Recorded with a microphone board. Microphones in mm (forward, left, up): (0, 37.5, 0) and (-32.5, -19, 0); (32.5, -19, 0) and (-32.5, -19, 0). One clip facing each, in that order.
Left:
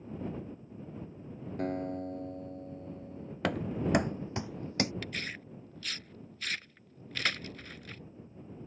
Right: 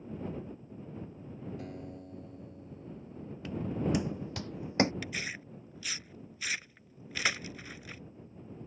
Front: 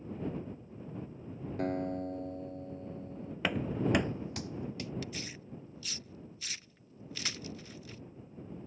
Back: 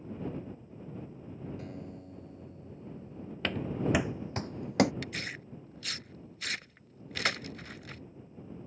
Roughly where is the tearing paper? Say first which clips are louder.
Right 1 dB, back 3 dB; behind.